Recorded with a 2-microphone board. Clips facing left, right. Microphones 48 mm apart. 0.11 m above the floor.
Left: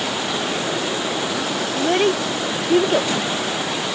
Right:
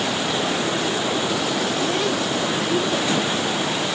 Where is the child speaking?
45° left (ahead or behind).